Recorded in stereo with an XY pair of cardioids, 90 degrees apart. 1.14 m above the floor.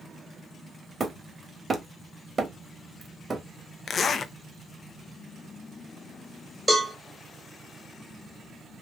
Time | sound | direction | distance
1.0 | hammering | 35° right | 1.2 m
3.9 | a zipper | 55° left | 0.6 m
6.7 | a cowbell | 5° left | 2.5 m